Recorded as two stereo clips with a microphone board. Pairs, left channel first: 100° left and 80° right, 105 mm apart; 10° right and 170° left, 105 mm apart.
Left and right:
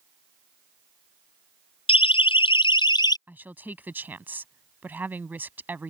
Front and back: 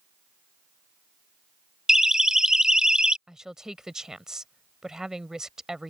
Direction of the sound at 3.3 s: 115° right.